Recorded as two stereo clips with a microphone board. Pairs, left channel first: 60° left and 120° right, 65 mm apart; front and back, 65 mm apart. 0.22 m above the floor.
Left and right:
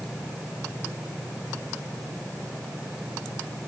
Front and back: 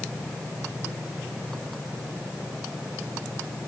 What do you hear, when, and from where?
Only background noise.